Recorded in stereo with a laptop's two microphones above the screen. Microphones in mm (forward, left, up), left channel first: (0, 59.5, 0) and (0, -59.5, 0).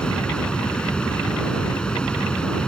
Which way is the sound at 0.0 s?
5° left (ahead or behind).